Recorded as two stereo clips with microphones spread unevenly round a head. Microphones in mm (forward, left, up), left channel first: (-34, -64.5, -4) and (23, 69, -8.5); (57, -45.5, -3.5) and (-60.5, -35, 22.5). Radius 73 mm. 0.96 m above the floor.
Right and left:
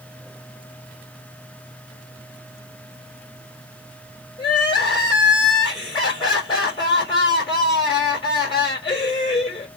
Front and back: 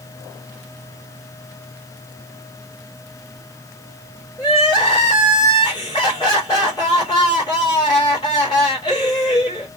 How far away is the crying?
About 2.5 m.